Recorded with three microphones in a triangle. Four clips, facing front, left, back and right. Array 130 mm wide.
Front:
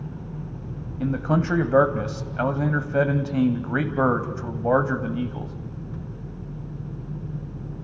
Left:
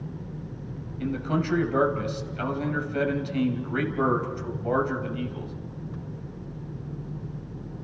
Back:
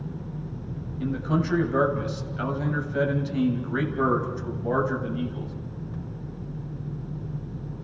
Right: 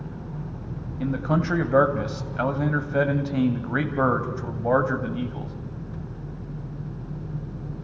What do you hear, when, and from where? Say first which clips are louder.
1.0 s a man speaking: right 3 dB, front 3 dB; 25° right, 3 m